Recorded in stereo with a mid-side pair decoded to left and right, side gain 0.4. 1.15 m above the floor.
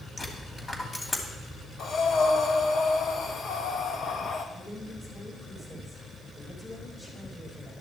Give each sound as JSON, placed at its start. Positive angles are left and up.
{"t": 0.2, "sound": "a dropped coin", "azimuth_deg": 30, "distance_m": 2.5}
{"t": 1.8, "sound": "breathing", "azimuth_deg": 55, "distance_m": 1.5}
{"t": 4.5, "sound": "a woman speaking", "azimuth_deg": 35, "distance_m": 7.0}